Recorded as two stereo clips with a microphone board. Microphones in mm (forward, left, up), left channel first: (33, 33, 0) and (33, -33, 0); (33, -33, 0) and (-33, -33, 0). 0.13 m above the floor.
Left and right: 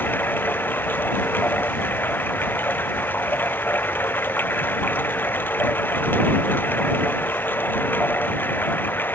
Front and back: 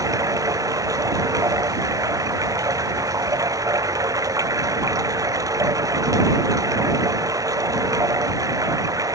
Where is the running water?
150° left.